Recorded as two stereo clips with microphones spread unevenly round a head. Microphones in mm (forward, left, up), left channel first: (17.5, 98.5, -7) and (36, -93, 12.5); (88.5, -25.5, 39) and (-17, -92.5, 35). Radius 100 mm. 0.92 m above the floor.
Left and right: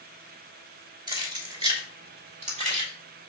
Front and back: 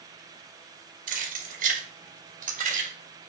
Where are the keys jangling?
160° right, 2.5 m; by 2.9 s 140° right, 3 m.